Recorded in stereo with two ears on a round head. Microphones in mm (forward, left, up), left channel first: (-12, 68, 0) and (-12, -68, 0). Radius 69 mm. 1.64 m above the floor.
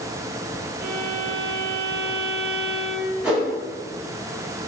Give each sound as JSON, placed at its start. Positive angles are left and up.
{"t": 0.8, "sound": "a violin", "side_deg": -75, "distance_m": 1.7}
{"t": 3.2, "sound": "a whoosh", "side_deg": -10, "distance_m": 2.0}